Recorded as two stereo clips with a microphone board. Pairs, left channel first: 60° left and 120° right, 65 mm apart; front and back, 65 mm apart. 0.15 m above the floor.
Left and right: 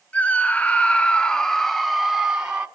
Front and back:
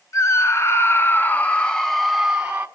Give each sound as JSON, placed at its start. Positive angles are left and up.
{"t": 0.1, "sound": "a scream", "azimuth_deg": 0, "distance_m": 1.6}